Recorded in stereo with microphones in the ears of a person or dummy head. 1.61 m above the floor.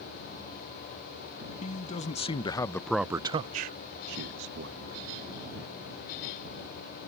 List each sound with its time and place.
1.6 s a man speaking: 35° left (ahead or behind); by 5.0 s 70° right (ahead or behind)